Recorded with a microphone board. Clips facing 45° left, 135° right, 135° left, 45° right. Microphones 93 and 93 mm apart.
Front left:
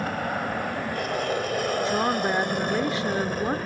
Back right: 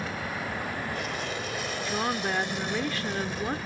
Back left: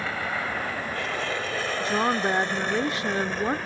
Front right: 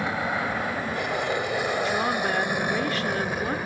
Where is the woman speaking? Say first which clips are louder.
Front left 3 dB, back left 1 dB; 90° left.